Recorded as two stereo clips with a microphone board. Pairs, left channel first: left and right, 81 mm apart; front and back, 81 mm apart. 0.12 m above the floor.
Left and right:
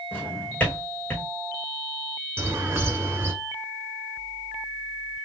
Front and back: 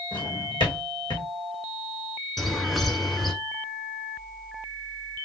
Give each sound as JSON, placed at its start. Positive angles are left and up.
{"t": 0.1, "sound": "a drawer", "azimuth_deg": 20, "distance_m": 2.5}
{"t": 2.4, "sound": "a bird", "azimuth_deg": -85, "distance_m": 1.1}